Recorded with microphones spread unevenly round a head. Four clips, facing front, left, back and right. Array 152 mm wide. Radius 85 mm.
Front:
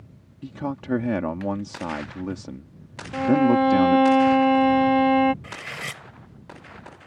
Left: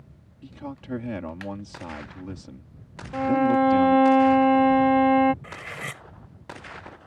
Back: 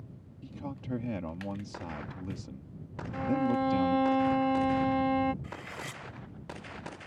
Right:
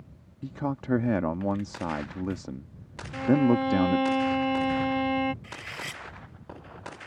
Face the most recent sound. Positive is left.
turn(degrees=35)